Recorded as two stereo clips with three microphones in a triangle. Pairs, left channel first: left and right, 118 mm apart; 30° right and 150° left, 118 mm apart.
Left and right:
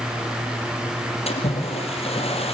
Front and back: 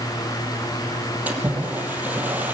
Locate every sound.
1.3 s a splash: 75° left, 4 m